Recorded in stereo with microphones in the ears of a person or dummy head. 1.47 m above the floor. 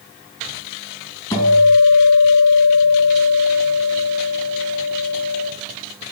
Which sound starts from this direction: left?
A guitar, at 1.3 s.